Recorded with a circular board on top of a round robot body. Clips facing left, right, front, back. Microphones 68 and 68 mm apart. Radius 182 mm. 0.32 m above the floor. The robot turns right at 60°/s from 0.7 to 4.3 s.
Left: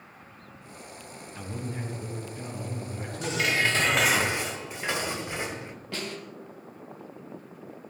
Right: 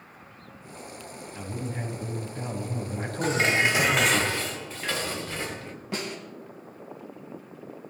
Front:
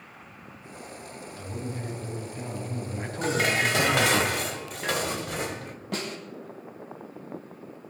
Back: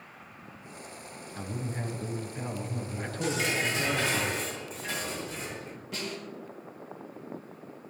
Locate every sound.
1.4 s a man speaking: 170° right, 4.5 m; by 4.2 s straight ahead, 4.5 m
3.2 s dishes clattering: 45° right, 1.6 m; by 5.8 s 20° left, 1.6 m
5.9 s a snare drum: 20° right, 4 m